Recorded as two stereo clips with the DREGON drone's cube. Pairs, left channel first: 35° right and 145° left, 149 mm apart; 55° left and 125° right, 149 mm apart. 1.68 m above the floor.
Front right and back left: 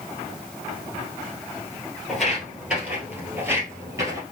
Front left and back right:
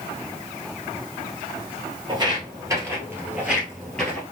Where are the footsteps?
120° right, 1.9 m; by 4.2 s 125° left, 1.8 m.